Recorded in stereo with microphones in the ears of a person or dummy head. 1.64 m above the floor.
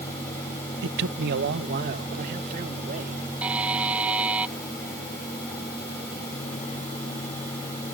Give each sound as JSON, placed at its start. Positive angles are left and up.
{"t": 0.8, "sound": "a man speaking", "side_deg": -70}
{"t": 3.4, "sound": "a buzzer", "side_deg": -10}